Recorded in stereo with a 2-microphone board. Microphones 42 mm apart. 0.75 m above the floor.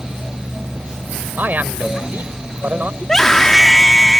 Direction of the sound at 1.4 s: 45° right (ahead or behind).